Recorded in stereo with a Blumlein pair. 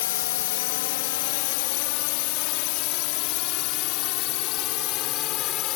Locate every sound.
0.0 s a drone: 55° left; by 5.8 s 35° left